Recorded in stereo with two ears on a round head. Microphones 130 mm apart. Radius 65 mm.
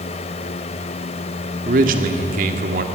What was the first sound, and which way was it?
A man speaking, 65° right (ahead or behind).